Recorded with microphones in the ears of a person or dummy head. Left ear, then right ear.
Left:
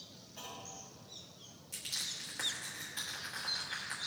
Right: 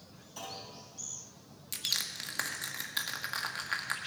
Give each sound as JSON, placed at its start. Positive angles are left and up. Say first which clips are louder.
{"t": 0.4, "sound": "a clunk", "louder": "right 4 dB", "side_deg": -60, "distance_m": 4.5}
{"t": 1.7, "sound": "crushing", "louder": "right 6 dB", "side_deg": -40, "distance_m": 1.2}